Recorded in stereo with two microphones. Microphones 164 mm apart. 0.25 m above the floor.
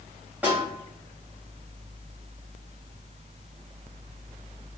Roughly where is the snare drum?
Centre.